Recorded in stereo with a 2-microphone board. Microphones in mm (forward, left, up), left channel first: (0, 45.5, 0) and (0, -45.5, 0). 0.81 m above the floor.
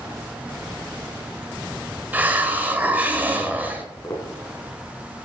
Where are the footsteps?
45° left (ahead or behind), 2.5 m.